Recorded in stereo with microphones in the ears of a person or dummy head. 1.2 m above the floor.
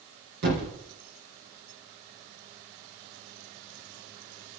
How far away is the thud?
About 4.5 m.